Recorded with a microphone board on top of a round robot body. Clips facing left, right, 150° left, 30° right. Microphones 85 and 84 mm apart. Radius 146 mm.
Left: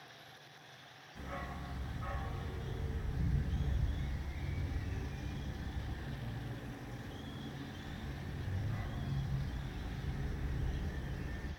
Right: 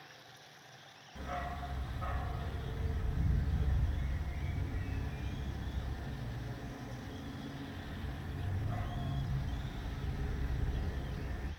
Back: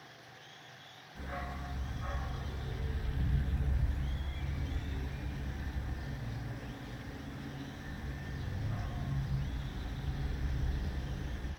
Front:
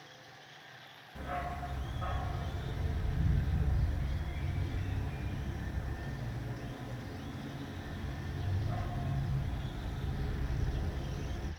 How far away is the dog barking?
About 1.4 m.